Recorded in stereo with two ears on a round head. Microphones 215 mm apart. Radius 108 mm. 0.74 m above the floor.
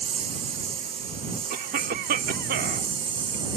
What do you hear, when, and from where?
0.0 s a lawn mower: 25° right (ahead or behind); by 3.6 s 20° right (ahead or behind)
1.5 s a cough: 40° right (ahead or behind)